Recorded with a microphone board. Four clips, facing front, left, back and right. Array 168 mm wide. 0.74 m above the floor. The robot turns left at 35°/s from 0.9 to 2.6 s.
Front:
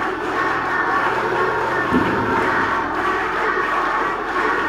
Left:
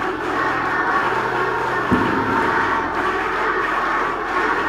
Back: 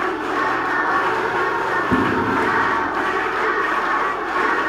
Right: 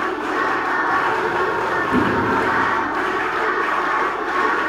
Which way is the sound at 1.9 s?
115° left.